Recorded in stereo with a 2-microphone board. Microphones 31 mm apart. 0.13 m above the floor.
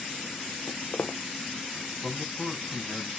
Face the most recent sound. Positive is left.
turn(degrees=5)  # may be behind; listen again after turning